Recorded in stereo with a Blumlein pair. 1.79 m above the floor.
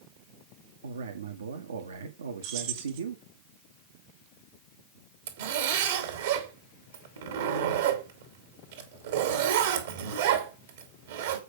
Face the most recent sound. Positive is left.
turn(degrees=-60)